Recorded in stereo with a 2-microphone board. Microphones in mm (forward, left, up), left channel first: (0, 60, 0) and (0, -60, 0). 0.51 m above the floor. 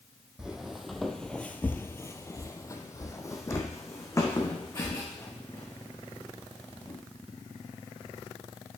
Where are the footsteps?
5° right (ahead or behind), 0.9 m; by 7.0 s 20° left (ahead or behind), 3 m.